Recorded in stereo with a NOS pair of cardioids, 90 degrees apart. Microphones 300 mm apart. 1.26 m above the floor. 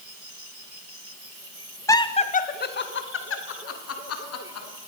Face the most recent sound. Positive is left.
turn(degrees=55)